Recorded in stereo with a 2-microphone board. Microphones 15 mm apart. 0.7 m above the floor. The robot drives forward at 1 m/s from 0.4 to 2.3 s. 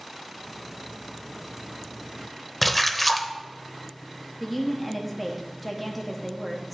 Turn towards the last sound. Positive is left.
turn(degrees=5)  # may be behind; listen again after turning